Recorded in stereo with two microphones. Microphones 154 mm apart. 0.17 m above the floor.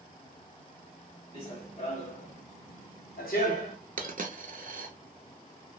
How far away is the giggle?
No giggle in this recording.